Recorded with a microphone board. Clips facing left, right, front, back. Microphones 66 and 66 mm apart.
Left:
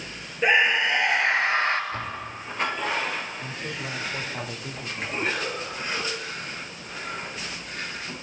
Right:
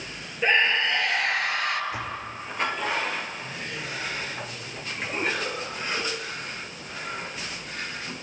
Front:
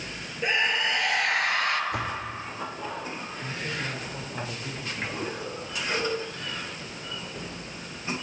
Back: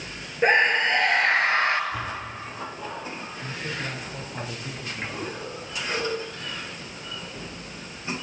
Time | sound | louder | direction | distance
0.4 | a scream | left 2 dB, back 6 dB | 165° left | 2.5 m
1.9 | a door slam | even, front 1 dB | 15° right | 3 m
3.4 | a man speaking | left 1 dB, back 1 dB | 90° left | 4.5 m